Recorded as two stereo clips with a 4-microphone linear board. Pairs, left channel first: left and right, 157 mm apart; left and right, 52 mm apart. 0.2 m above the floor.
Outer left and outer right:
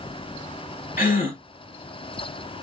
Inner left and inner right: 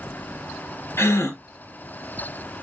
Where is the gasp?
65° left (ahead or behind), 2 m.